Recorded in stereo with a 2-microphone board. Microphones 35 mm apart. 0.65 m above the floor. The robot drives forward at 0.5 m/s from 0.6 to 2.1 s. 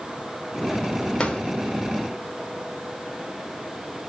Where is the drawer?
25° left (ahead or behind), 0.9 m; by 1.4 s 30° left (ahead or behind), 0.8 m.